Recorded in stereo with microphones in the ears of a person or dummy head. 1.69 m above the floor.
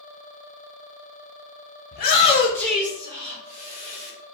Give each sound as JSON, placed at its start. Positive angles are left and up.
{"t": 1.9, "sound": "a shout", "side_deg": 50, "distance_m": 0.7}